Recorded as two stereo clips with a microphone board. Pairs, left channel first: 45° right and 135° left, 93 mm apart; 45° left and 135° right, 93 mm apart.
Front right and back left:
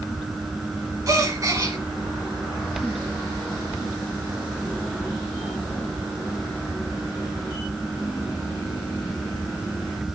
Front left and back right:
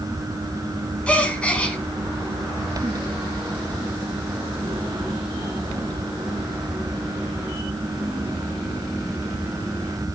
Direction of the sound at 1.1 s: 115° left.